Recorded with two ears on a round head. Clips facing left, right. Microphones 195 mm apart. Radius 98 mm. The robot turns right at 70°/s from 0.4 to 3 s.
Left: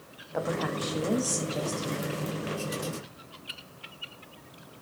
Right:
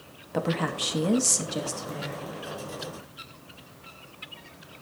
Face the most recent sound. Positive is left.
turn(degrees=75)